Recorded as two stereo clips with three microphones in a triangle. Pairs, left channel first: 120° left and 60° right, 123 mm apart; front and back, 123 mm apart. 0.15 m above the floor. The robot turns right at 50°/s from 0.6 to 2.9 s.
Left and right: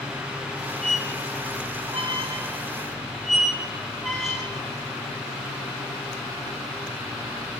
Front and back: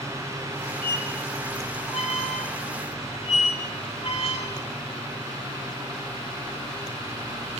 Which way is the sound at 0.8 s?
75° right.